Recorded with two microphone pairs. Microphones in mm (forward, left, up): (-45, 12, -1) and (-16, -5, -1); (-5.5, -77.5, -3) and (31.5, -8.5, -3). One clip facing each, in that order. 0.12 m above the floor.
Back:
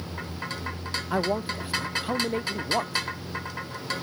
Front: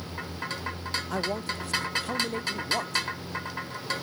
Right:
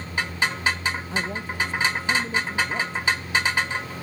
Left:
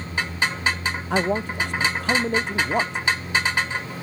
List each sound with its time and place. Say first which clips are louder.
1.1 s a man speaking: back 6 dB, left 6 dB; 80° left